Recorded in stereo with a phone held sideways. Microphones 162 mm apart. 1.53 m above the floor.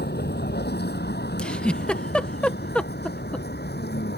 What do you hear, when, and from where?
0.0 s a vehicle: 85° left
1.4 s a giggle: 5° left (ahead or behind)